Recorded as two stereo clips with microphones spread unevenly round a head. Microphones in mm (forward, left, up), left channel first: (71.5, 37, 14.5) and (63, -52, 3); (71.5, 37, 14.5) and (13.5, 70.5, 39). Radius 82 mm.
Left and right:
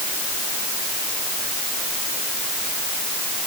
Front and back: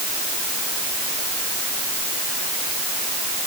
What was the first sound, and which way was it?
Only background noise.